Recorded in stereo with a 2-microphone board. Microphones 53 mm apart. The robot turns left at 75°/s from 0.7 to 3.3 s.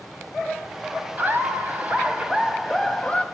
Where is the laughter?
70° right, 1.1 m; by 3.2 s 135° left, 1.1 m.